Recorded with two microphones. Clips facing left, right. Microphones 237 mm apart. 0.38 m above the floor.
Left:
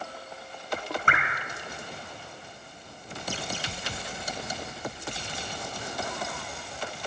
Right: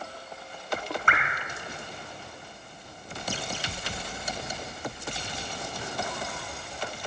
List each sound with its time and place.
1.1 s dripping: 40° left (ahead or behind), 3.5 m